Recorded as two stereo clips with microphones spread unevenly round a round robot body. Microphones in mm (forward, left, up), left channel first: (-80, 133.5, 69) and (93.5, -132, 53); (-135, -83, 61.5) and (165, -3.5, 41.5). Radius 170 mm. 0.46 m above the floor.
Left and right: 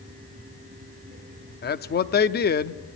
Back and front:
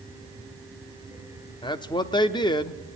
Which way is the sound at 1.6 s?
130° left.